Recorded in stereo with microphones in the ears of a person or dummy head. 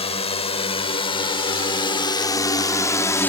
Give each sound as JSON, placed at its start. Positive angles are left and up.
{"t": 0.0, "sound": "a drone", "side_deg": 30}